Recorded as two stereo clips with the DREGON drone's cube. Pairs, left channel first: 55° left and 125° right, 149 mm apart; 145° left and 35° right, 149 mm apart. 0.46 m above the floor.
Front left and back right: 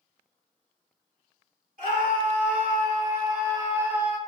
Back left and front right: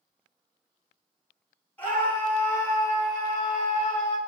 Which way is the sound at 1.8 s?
135° right.